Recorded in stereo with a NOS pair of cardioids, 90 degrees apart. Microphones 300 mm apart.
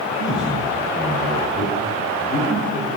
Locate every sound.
0.1 s a man speaking: 15° left, 5.5 m; by 2.9 s 40° left, 6.5 m